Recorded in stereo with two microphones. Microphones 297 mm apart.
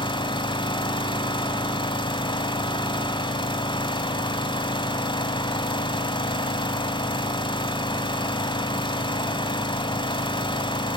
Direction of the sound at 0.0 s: 15° left (ahead or behind).